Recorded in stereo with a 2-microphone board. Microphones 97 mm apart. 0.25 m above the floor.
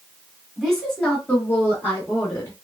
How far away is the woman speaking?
About 1.5 m.